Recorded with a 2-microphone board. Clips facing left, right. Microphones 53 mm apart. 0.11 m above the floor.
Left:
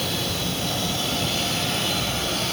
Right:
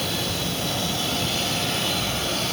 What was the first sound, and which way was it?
Only background noise.